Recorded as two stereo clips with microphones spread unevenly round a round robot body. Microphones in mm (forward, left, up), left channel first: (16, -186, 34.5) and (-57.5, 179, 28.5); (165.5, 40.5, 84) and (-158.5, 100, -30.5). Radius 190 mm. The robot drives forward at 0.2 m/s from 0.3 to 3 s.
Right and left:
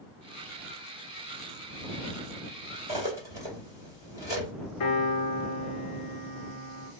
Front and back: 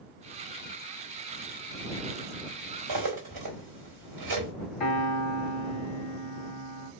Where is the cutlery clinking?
Straight behind, 2.0 m.